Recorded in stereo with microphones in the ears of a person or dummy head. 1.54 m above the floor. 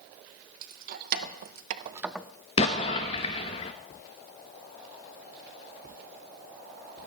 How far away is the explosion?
About 0.8 m.